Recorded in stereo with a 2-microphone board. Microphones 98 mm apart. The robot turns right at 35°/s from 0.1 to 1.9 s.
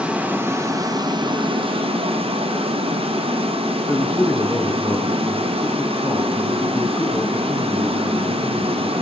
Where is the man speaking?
20° left (ahead or behind), 0.8 m.